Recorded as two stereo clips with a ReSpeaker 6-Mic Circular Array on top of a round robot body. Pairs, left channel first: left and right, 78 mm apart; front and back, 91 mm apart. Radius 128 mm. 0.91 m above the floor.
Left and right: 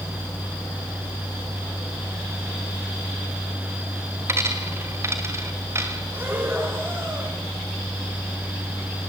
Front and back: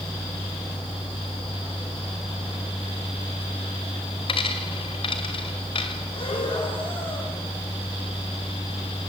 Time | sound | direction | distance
4.3 | a dropped coin | 35° right | 2 m
6.1 | breathing | 25° right | 5.5 m